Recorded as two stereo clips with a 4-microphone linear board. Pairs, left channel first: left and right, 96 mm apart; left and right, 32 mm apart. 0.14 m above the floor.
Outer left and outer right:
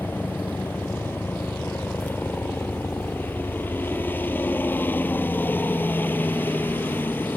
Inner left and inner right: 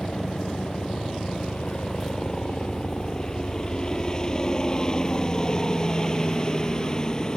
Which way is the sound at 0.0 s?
20° left (ahead or behind).